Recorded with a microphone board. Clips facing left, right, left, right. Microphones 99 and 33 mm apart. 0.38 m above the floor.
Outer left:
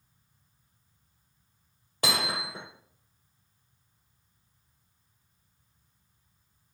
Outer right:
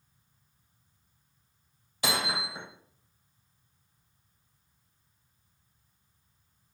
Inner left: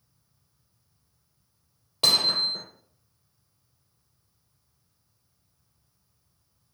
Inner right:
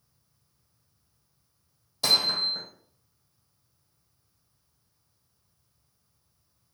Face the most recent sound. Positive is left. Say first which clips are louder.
# even, inner left 2 dB
turn(degrees=50)  # may be behind; listen again after turning